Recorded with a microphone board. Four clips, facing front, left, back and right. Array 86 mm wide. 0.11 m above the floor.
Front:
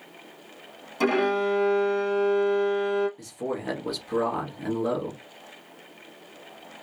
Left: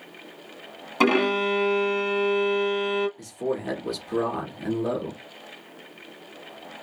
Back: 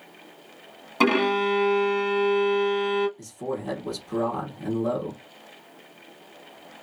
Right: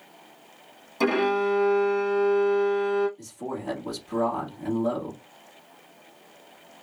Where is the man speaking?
35° left, 1.5 m.